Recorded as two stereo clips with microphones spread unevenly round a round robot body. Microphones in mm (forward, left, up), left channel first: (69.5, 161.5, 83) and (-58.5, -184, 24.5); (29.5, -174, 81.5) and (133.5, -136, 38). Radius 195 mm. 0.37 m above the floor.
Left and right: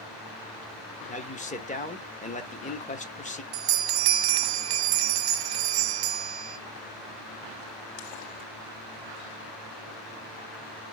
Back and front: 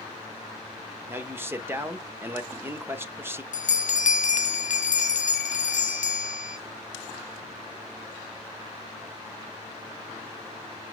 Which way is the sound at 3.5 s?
130° right.